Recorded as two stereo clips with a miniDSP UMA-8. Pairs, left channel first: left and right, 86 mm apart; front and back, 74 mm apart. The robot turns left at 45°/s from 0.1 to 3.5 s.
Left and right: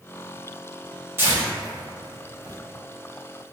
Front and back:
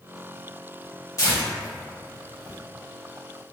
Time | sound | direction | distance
1.2 | tearing paper | 30° right | 1.2 m